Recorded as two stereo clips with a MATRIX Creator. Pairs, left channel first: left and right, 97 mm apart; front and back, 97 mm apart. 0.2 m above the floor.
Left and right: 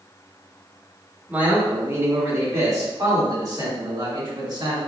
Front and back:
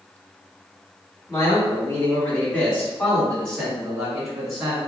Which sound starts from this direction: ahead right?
A man speaking, at 1.3 s.